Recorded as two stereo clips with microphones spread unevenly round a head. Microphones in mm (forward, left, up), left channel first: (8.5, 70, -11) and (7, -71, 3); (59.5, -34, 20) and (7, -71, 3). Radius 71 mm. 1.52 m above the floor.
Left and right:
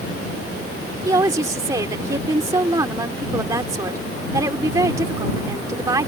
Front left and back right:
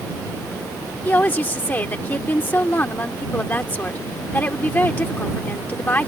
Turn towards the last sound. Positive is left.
turn(degrees=-25)